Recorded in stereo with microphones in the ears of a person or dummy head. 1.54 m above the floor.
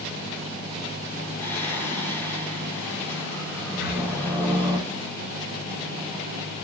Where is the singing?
15° left (ahead or behind), 5 m.